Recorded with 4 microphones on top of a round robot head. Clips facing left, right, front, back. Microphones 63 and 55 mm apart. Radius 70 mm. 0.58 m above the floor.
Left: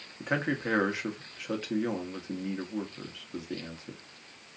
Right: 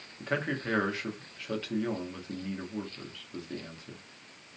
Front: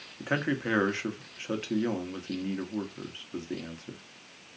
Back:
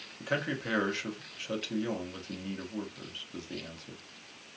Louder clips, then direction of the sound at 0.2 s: Left 2 dB, front 3 dB; 30° left.